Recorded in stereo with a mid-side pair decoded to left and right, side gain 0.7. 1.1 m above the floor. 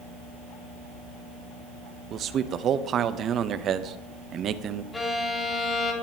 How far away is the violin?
About 2.5 m.